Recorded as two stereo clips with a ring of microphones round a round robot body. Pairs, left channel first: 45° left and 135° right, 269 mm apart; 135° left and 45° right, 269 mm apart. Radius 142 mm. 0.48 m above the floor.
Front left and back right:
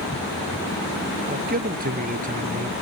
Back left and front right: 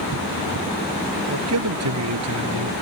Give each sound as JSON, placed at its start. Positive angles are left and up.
{"t": 1.3, "sound": "a man speaking", "azimuth_deg": -80}